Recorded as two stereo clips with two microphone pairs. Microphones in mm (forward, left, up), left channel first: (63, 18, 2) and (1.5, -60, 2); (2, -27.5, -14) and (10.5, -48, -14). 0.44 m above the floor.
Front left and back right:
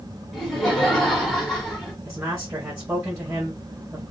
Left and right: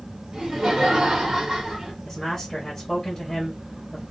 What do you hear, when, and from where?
0.3 s laughter: 35° right, 1.7 m
2.0 s a man speaking: 175° left, 1.1 m